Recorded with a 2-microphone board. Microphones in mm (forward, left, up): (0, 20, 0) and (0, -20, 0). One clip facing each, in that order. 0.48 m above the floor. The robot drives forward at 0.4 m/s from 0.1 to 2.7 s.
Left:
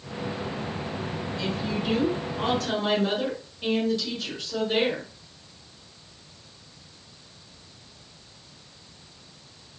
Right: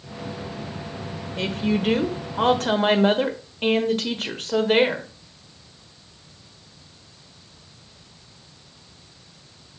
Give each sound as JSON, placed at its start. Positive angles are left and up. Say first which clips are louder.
{"t": 1.4, "sound": "a woman speaking", "louder": "right 7 dB", "side_deg": -55, "distance_m": 1.3}